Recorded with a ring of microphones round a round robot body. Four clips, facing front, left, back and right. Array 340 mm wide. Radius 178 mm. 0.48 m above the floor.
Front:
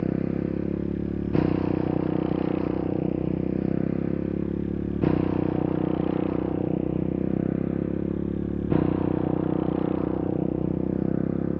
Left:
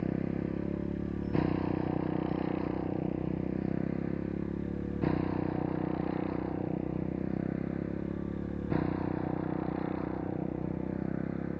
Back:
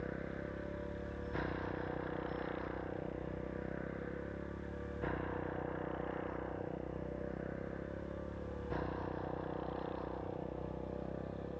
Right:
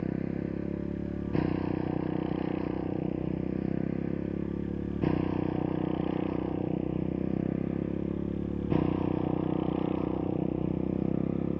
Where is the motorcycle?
Straight ahead; by 11.6 s 15° right.